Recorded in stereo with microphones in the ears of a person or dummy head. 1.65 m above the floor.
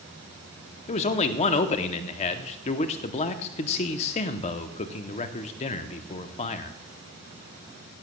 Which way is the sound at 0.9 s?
40° left (ahead or behind).